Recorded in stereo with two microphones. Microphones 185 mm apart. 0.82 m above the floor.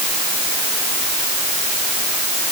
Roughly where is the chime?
I don't hear a chime.